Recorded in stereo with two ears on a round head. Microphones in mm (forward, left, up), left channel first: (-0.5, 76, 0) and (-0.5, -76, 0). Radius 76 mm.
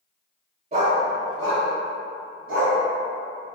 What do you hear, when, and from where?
0.7 s a dog barking: 35° right (ahead or behind), 0.6 m; by 2.8 s 80° right, 1.8 m